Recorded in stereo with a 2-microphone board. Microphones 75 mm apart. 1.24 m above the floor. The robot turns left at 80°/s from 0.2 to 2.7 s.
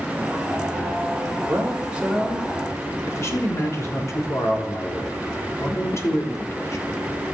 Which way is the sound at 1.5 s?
125° right.